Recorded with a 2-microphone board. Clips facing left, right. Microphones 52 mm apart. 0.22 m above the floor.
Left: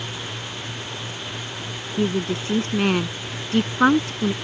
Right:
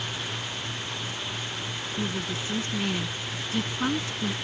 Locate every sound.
2.0 s a woman speaking: 60° left (ahead or behind)